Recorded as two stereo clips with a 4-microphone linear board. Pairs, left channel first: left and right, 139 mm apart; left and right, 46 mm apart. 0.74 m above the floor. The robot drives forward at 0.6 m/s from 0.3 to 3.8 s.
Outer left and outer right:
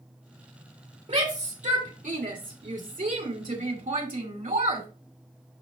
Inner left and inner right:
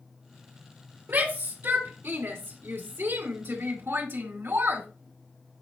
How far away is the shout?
About 2.5 m.